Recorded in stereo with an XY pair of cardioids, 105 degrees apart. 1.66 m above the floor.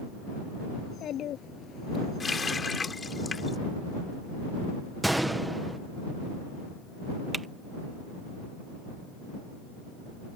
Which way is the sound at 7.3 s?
25° right.